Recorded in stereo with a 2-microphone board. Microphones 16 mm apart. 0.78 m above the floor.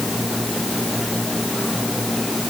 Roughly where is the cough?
I don't hear a cough.